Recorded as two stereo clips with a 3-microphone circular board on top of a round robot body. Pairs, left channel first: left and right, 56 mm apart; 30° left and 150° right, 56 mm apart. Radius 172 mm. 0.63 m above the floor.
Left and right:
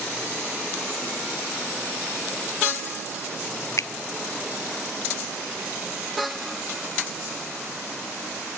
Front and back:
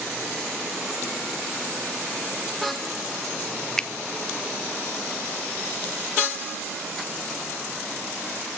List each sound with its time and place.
3.8 s a finger snap: 105° left, 0.8 m